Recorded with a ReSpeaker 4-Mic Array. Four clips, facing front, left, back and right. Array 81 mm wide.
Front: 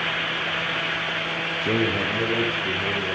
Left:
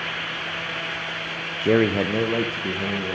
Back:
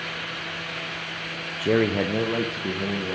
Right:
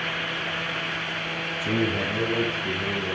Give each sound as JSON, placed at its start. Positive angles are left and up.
{"t": 1.6, "sound": "a man speaking", "azimuth_deg": 95, "distance_m": 0.5}